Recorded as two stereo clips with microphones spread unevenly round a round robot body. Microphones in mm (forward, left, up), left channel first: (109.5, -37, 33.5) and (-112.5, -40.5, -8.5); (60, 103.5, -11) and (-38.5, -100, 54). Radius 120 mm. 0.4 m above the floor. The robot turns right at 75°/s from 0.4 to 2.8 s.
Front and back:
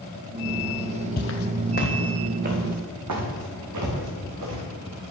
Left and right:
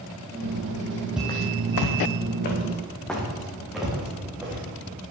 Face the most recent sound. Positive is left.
turn(degrees=160)